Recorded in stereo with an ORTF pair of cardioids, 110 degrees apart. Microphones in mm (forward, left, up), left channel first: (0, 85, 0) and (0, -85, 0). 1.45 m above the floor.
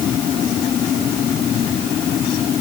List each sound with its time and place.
Only background noise.